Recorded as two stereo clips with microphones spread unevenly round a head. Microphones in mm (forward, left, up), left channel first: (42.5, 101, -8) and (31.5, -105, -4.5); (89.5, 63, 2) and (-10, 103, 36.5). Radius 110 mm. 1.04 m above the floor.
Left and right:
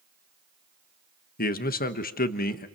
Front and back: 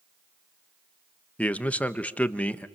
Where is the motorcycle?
I don't hear a motorcycle.